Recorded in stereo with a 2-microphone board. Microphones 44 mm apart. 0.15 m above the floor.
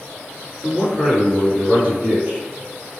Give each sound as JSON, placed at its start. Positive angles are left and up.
{"t": 0.6, "sound": "a man speaking", "side_deg": 0, "distance_m": 1.5}